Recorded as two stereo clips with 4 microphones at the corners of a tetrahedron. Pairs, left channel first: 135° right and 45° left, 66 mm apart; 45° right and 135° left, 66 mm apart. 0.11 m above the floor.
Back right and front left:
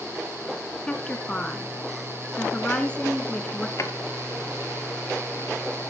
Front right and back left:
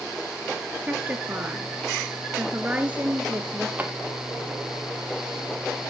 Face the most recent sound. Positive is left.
turn(degrees=-165)